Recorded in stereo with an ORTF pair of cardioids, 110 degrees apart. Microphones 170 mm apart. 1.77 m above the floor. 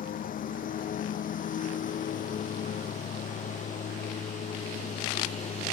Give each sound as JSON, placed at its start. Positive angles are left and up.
{"t": 0.0, "sound": "a lawn mower", "azimuth_deg": 60}